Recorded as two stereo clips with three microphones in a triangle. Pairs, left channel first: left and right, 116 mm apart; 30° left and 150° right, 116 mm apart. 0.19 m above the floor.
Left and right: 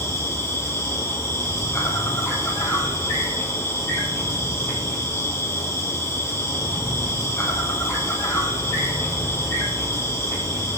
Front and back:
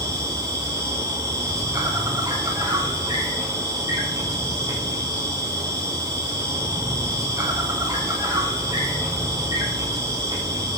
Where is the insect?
155° left, 3.5 m.